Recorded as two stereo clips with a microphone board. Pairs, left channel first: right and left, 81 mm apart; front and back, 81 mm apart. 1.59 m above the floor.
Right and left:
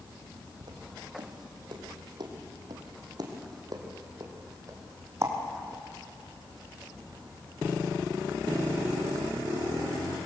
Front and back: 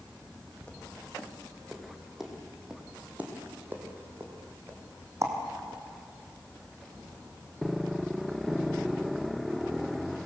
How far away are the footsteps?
About 3.5 m.